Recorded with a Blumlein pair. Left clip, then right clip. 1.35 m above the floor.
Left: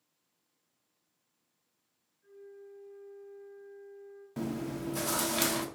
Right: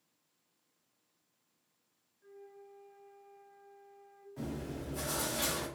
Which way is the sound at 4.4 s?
40° left.